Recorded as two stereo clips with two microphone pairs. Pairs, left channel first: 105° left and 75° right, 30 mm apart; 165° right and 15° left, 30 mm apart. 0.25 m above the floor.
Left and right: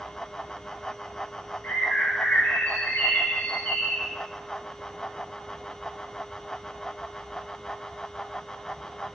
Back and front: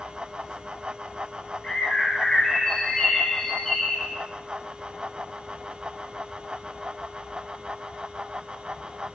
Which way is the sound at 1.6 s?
130° left.